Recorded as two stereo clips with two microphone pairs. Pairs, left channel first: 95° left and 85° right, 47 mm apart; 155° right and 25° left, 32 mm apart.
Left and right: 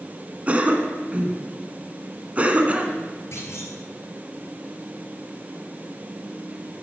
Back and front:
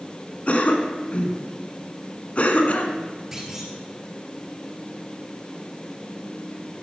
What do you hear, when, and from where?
0.5 s a cough: 135° right, 1.4 m
3.3 s a clunk: 105° left, 2 m